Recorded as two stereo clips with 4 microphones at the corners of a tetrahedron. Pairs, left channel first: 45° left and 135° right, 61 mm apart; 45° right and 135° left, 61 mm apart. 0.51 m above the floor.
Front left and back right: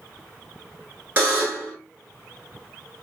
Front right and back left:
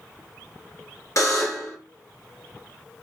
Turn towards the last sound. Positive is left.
turn(degrees=-80)